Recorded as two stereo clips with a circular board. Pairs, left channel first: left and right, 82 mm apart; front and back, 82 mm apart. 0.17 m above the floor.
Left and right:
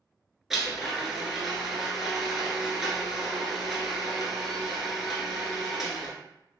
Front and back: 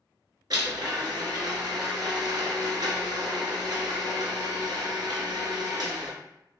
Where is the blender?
175° right, 1.0 m.